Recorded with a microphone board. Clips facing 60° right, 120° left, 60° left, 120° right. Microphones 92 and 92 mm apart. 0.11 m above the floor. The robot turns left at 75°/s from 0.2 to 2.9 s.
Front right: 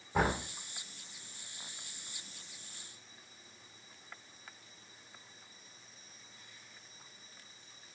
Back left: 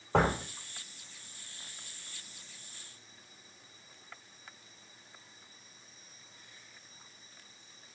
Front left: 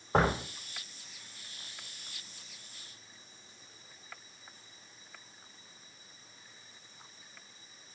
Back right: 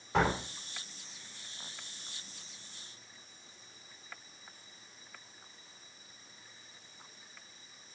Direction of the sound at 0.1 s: 110° left.